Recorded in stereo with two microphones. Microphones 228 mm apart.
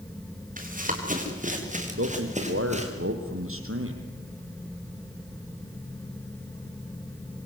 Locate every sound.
0.6 s running footsteps: 35° right (ahead or behind), 5.5 m; by 2.9 s 30° right (ahead or behind), 4.5 m
2.0 s a man speaking: 70° right (ahead or behind), 3.5 m